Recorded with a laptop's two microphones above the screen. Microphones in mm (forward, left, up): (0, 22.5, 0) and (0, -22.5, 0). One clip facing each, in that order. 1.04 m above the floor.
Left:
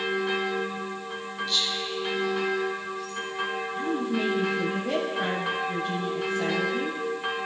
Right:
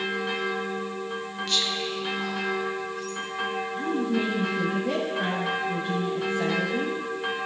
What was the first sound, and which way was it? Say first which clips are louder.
Whispering: right 2 dB; 65° right (ahead or behind).